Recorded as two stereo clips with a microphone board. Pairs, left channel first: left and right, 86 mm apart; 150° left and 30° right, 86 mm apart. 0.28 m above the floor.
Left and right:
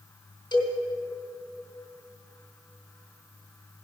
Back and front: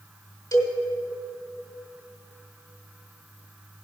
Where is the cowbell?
115° left, 2.0 m.